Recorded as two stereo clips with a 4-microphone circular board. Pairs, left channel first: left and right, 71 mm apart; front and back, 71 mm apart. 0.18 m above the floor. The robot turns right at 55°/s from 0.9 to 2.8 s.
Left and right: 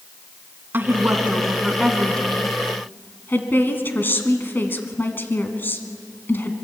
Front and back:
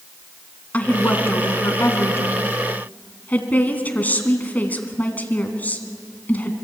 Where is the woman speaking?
55° right, 1.9 m; by 6.5 s 50° left, 1.9 m.